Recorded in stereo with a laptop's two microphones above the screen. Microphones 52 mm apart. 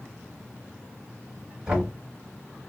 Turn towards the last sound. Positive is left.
turn(degrees=-20)  # may be behind; listen again after turning